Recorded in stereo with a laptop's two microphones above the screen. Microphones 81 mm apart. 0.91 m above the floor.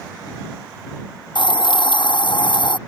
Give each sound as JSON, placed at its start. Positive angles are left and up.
{"t": 1.4, "sound": "a hiss", "side_deg": 75}